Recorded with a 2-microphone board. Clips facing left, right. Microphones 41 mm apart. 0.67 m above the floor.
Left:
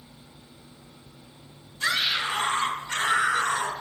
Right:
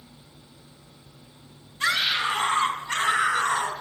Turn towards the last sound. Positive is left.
turn(degrees=-35)  # may be behind; listen again after turning